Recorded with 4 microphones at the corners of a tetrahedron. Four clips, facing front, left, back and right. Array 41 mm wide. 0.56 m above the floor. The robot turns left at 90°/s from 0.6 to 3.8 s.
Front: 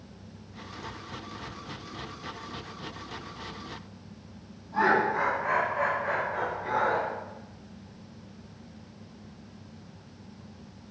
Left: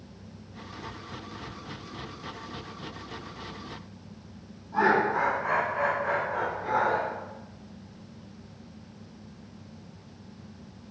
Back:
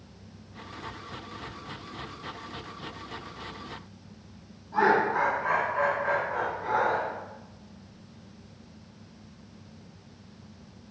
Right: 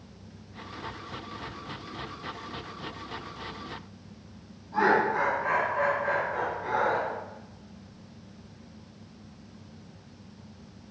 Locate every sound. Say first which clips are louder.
4.7 s laughter: even, back 1 dB; 160° right, 1.1 m